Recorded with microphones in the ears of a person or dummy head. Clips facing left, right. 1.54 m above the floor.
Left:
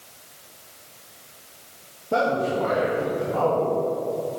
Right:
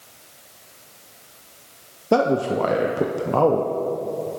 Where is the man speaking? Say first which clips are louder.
Right 4 dB; 80° right, 0.6 m.